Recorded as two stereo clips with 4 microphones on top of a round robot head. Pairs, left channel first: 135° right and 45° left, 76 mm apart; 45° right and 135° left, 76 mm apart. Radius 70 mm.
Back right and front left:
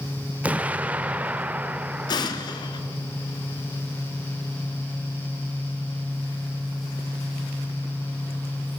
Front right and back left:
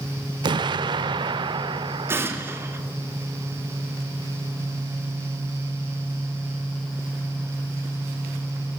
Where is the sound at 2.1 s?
165° right, 1.9 m.